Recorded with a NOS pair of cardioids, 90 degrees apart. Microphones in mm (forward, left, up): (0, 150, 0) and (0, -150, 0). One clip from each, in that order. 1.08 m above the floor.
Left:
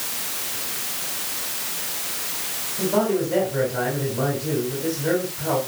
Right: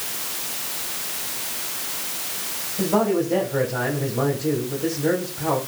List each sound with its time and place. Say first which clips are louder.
2.8 s a man speaking: right 1 dB; 40° right, 5 m